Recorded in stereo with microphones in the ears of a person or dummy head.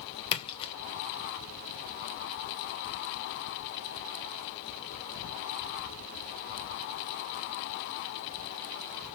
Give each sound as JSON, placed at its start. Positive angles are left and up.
{"t": 0.3, "sound": "a splash", "side_deg": 30, "distance_m": 0.9}